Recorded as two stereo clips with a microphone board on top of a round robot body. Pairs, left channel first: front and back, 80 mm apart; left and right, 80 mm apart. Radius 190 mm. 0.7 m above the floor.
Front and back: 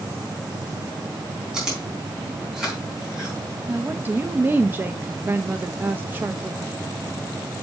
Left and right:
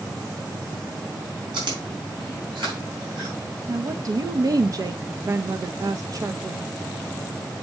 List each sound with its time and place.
1.5 s chewing: 100° right, 4 m
3.7 s a woman speaking: 120° right, 0.8 m